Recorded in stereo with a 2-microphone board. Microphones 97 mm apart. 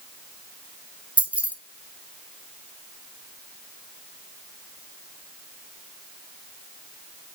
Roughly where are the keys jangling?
Centre.